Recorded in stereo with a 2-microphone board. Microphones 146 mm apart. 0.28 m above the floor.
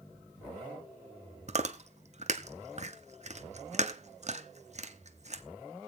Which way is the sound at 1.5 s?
50° right (ahead or behind).